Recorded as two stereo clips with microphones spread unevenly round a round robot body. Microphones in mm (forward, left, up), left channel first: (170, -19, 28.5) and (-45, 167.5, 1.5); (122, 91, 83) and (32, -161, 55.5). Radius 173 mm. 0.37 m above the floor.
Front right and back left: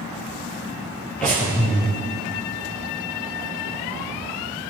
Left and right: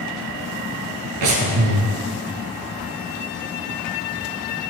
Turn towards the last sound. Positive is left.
turn(degrees=-130)